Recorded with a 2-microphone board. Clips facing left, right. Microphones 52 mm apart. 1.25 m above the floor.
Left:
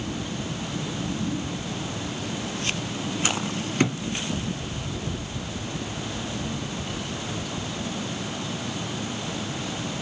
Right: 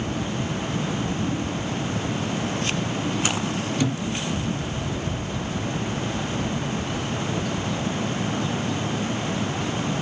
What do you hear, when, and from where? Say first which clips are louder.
3.8 s a thud: left 2 dB; 50° left (ahead or behind), 2.5 m